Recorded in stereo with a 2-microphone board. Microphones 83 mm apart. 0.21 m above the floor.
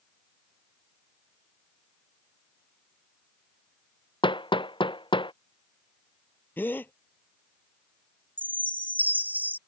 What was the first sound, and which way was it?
Hammering, 80° left.